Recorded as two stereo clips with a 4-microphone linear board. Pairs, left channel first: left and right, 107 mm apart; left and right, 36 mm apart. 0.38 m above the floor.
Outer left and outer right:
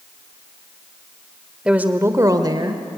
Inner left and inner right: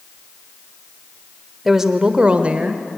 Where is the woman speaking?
10° right (ahead or behind), 1.1 m; by 2.8 s 45° right (ahead or behind), 1.4 m.